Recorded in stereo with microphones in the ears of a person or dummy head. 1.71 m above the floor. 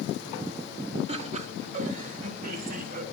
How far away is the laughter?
About 1.8 m.